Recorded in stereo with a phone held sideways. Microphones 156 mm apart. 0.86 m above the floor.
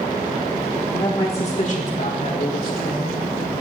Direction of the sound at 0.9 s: 20° left (ahead or behind).